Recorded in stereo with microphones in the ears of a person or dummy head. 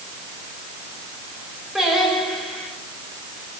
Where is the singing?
Centre (ahead or behind), 4.5 m.